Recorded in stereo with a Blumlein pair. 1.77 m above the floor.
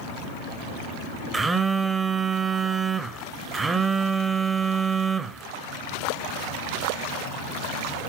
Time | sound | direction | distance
1.3 | a phone buzzing | 15° right | 1.0 m